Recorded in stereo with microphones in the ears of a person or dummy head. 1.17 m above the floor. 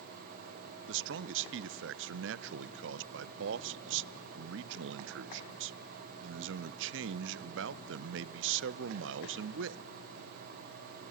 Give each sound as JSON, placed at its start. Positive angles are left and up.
{"t": 0.9, "sound": "a man speaking", "side_deg": -60, "distance_m": 0.5}